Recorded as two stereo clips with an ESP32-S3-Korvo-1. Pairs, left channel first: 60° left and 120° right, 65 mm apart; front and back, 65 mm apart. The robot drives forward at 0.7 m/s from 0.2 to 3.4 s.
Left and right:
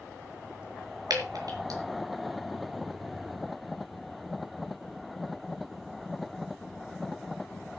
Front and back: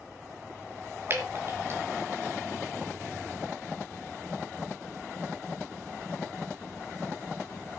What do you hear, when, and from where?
1.1 s dripping: 130° right, 4 m; by 1.8 s 135° right, 4.5 m